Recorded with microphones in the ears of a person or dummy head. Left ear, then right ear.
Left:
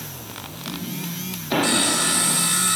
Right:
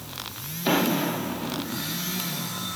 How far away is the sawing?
About 1.2 m.